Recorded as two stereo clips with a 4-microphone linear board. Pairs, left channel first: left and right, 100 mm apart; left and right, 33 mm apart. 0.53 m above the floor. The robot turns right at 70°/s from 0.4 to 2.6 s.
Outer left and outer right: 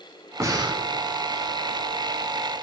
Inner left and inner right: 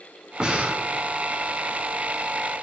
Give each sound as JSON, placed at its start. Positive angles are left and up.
{"t": 0.4, "sound": "breathing", "side_deg": -30, "distance_m": 1.0}